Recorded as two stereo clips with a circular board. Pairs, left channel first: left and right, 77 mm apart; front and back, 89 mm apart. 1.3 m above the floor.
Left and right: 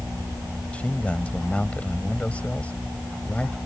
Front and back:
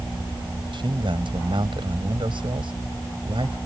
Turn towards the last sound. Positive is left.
turn(degrees=165)